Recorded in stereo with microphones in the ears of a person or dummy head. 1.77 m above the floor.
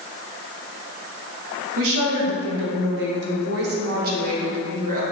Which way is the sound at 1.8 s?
70° right (ahead or behind).